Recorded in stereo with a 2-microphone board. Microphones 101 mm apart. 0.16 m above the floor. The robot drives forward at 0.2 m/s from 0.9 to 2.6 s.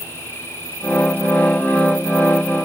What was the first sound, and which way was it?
Only background noise.